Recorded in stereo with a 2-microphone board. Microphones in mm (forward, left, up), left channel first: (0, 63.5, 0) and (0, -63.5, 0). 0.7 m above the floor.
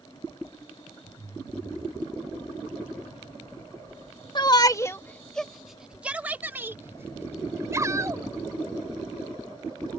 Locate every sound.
4.3 s a shout: 40° left (ahead or behind); by 10.0 s 30° right (ahead or behind)